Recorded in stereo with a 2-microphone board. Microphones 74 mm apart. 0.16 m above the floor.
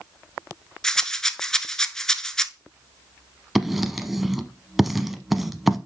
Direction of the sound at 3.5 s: 5° right (ahead or behind).